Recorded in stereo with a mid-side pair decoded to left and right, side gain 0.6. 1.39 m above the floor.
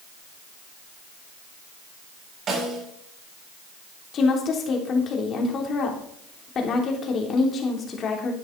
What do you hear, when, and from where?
2.5 s a snare drum: 40° right, 7.5 m
4.1 s a woman speaking: 45° left, 3.5 m